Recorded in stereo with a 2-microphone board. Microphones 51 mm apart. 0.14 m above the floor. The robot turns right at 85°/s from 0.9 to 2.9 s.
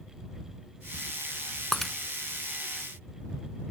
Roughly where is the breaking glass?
Centre.